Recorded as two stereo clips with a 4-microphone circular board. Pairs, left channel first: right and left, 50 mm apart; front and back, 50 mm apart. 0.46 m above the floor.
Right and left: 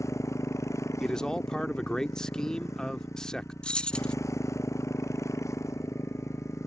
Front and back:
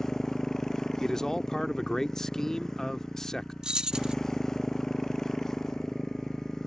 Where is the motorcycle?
80° right.